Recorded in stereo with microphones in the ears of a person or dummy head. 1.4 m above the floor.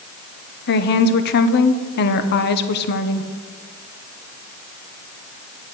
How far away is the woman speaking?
About 1.0 m.